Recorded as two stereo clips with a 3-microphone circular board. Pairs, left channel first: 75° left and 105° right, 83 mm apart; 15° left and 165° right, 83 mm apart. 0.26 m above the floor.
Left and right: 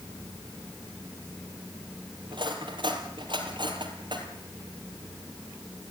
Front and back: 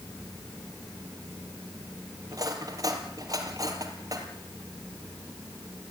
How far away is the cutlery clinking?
About 4 m.